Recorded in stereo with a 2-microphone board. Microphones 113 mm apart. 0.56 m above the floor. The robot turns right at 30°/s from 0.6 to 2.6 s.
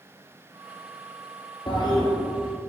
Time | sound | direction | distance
1.7 | a toilet flushing | 40° left (ahead or behind) | 2.5 m